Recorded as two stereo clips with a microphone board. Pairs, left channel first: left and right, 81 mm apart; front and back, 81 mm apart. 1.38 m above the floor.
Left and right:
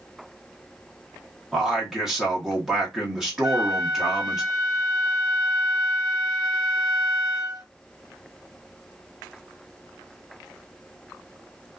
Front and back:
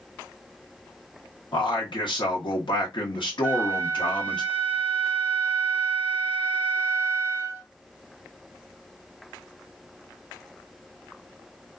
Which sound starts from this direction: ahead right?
A flute, at 3.4 s.